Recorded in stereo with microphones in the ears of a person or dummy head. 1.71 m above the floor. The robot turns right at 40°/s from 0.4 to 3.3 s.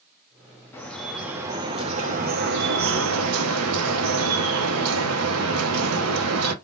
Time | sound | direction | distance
0.7 | dripping | 165° left | 0.7 m